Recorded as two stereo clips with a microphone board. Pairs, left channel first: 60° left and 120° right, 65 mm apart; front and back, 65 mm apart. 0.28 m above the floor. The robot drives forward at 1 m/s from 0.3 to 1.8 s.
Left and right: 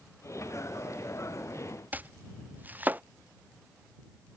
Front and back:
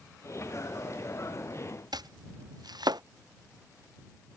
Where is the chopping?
175° left.